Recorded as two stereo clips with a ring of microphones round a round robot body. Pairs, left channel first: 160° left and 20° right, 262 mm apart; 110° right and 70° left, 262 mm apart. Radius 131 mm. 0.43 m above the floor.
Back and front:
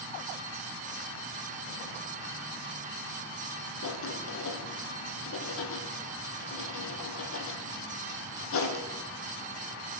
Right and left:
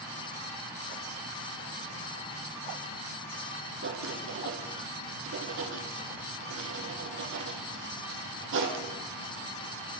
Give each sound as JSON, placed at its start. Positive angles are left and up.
{"t": 3.8, "sound": "writing", "azimuth_deg": 115, "distance_m": 3.0}